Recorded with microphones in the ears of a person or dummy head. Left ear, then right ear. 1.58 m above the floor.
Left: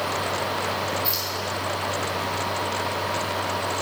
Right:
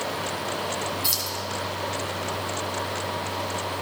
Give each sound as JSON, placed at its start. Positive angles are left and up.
{"t": 1.0, "sound": "keys jangling", "side_deg": -65, "distance_m": 1.5}